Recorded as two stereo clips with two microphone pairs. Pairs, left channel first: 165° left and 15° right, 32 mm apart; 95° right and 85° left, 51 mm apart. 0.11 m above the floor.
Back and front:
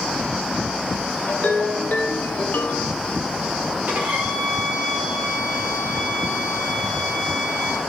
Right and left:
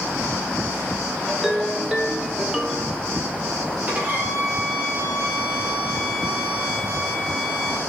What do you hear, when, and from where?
1.3 s a ringtone: 170° left, 2.0 m
3.9 s a violin: 20° left, 3 m